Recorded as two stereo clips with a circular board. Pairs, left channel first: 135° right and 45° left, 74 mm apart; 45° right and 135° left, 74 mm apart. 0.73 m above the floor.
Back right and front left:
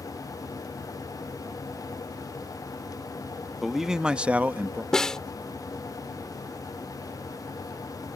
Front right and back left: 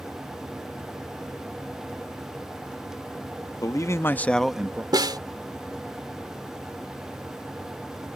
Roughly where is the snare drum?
Behind left.